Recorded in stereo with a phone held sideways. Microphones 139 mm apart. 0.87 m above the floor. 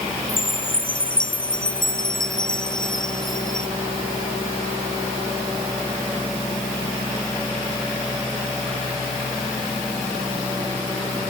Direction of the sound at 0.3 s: 75° left (ahead or behind).